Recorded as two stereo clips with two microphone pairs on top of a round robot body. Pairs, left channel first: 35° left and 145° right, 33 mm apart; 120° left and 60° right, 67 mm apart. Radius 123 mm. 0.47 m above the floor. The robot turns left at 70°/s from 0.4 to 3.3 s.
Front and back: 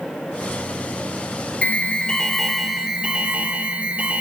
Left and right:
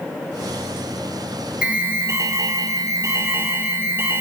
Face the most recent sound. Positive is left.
turn(degrees=-105)